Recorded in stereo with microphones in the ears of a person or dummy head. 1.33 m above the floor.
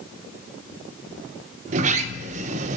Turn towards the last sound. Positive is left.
turn(degrees=-45)  # may be behind; listen again after turning